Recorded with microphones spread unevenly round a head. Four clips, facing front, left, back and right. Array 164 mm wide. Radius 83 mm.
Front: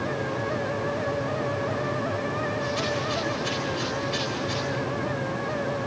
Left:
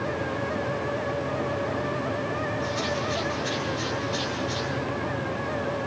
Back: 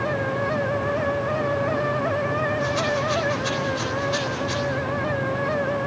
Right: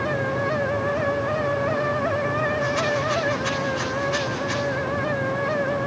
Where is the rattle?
115° right, 4 m.